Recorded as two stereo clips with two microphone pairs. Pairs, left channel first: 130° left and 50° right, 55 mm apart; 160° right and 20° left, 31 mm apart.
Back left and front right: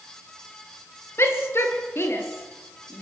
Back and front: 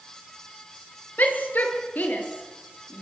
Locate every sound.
1.2 s a shout: 175° left, 5.5 m; by 3.0 s straight behind, 7.5 m